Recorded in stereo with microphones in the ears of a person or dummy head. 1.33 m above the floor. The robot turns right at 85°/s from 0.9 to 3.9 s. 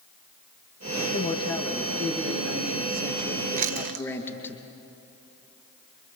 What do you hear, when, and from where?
1.1 s a man speaking: 135° left, 1.9 m; by 4.6 s 10° left, 1.9 m
3.6 s chewing: 40° right (ahead or behind), 0.8 m; by 4.0 s 60° right (ahead or behind), 0.8 m